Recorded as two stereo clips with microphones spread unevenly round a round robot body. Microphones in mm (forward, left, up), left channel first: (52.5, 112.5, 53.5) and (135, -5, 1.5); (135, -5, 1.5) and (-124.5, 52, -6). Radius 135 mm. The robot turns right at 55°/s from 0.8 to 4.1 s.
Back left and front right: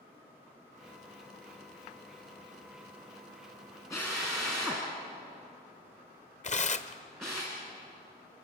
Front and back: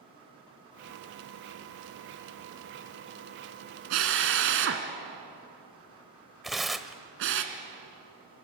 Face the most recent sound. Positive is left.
turn(degrees=80)